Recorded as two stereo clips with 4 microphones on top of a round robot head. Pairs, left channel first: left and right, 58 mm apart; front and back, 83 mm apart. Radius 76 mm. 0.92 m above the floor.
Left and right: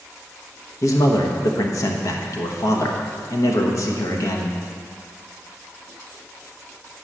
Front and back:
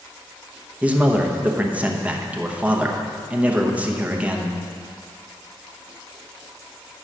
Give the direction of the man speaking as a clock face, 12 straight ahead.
8 o'clock.